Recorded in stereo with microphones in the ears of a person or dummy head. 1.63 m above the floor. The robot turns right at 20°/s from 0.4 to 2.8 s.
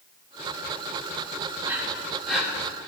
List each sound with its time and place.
1.6 s breathing: 20° right (ahead or behind), 1.6 m; by 2.9 s 5° left (ahead or behind), 1.6 m